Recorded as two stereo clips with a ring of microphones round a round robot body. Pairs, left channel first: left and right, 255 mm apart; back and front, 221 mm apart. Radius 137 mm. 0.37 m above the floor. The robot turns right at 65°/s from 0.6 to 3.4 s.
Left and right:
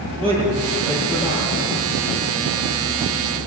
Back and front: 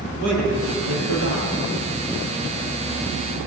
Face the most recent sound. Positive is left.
turn(degrees=160)